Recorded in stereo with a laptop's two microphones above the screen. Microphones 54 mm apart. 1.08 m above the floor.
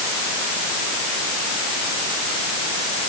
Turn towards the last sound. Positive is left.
No sound to turn to.